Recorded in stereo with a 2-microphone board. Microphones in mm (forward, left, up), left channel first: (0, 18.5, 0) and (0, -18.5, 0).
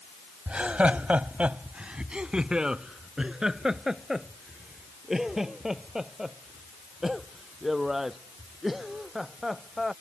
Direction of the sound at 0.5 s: 35° right (ahead or behind).